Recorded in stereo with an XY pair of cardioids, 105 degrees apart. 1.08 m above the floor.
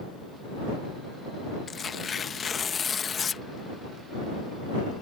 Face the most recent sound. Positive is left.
turn(degrees=40)